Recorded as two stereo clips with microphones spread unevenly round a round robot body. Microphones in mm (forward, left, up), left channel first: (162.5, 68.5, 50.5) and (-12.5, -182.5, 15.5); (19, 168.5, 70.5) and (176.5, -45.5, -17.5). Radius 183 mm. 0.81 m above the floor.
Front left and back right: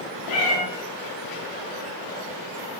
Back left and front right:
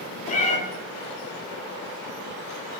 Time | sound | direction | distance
0.3 | a cat meowing | 65° left | 0.6 m